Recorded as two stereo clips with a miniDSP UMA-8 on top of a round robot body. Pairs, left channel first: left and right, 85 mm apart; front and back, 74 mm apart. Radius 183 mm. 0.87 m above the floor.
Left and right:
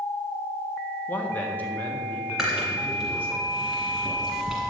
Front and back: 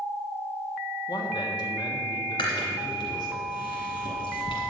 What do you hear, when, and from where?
1.1 s a man speaking: 20° left, 1.3 m
2.4 s chewing: 5° right, 1.6 m